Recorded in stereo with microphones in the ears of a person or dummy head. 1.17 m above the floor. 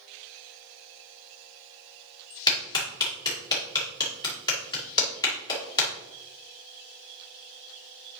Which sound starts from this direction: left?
A clap, at 2.5 s.